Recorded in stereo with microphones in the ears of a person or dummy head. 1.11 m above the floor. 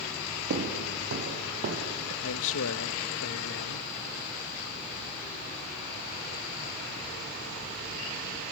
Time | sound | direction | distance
0.5 | footsteps | 45° right (ahead or behind) | 1.9 m
2.2 | a man speaking | 70° left (ahead or behind) | 1.0 m